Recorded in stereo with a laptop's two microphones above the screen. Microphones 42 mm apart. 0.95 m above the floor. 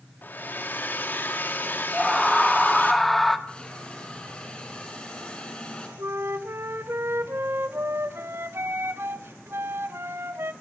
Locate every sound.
0.2 s a hair dryer: 50° left (ahead or behind), 2.5 m
1.9 s a scream: 5° left (ahead or behind), 1.7 m
3.5 s a hiss: 25° left (ahead or behind), 6 m
6.0 s a flute: 70° right (ahead or behind), 1.8 m